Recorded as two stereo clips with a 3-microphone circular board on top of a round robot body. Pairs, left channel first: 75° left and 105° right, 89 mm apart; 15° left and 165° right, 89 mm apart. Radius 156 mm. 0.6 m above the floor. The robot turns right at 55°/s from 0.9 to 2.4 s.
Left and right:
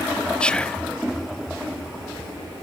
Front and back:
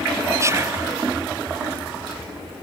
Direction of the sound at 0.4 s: 150° left.